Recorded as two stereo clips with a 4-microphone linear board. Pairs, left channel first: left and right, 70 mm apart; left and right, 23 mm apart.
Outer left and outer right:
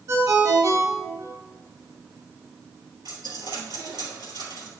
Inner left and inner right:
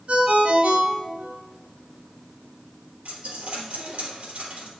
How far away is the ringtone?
About 1.8 m.